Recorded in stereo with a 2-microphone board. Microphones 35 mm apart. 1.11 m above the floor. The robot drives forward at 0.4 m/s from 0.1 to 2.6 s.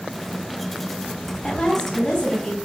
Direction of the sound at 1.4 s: 10° left (ahead or behind).